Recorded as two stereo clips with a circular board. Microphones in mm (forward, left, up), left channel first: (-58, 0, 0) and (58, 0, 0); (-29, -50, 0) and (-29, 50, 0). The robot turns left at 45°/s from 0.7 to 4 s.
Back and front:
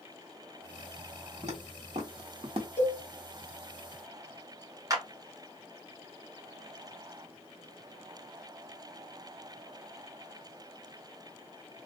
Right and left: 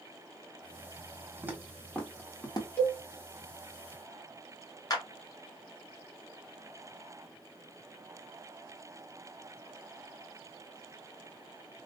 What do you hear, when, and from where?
1.4 s footsteps: 25° left, 1.5 m; by 2.7 s 45° right, 0.9 m
2.8 s a cowbell: 40° right, 1.4 m; by 3.0 s 50° right, 1.4 m
4.9 s a clap: 50° right, 1.4 m